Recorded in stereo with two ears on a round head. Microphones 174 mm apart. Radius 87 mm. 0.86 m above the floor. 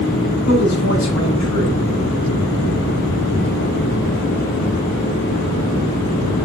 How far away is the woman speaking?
About 5 m.